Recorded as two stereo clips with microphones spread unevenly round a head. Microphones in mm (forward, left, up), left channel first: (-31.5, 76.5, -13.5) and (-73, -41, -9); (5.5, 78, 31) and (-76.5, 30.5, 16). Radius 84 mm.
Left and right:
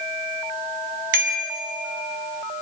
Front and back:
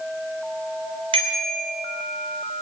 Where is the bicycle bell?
95° right, 3.5 m.